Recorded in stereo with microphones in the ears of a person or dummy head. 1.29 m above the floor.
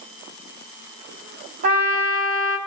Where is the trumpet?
55° right (ahead or behind), 2.5 m.